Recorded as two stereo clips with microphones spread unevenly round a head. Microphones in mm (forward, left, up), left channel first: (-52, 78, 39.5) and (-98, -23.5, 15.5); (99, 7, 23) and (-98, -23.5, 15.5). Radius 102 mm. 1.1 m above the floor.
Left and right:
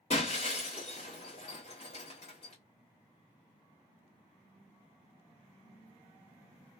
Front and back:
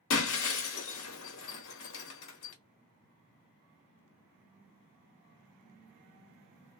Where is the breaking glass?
25° left, 0.9 m.